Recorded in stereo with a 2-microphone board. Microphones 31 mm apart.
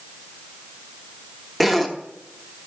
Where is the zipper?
Centre (ahead or behind), 1.0 m.